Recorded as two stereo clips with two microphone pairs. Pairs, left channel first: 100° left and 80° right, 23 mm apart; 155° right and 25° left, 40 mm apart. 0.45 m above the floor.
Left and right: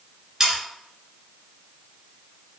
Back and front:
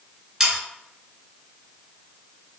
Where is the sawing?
40° right, 1.5 m.